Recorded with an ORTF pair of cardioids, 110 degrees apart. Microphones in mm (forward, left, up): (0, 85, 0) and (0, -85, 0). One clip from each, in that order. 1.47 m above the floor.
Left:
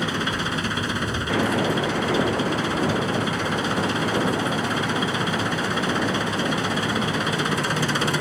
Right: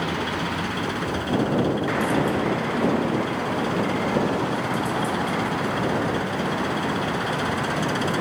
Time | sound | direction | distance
0.0 | an engine running | 60° left | ?